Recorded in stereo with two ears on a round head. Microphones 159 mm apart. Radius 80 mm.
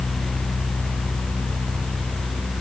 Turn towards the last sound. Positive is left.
No sound to turn to.